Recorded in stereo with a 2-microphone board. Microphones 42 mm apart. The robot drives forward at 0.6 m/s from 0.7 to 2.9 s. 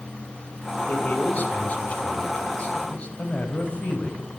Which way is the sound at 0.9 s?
40° left (ahead or behind).